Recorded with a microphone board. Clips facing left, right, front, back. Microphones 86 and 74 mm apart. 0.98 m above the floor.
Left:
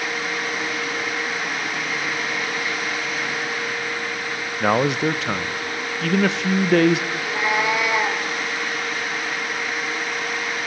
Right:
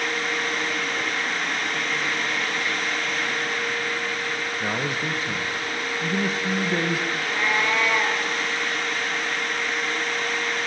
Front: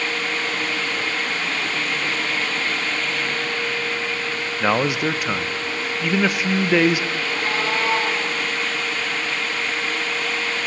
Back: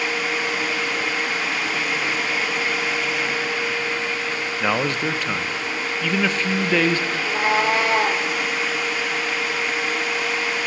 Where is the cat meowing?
170° left, 4 m.